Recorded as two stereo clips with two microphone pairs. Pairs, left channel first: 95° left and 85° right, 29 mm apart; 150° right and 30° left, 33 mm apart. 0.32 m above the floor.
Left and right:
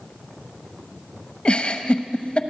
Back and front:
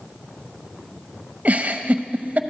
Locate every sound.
1.4 s a giggle: 50° left, 0.9 m